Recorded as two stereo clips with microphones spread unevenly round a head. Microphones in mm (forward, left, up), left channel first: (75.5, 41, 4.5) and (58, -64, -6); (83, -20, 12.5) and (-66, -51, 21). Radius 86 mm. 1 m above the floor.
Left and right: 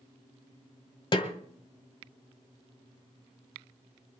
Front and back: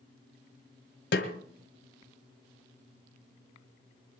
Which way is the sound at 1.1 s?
45° left.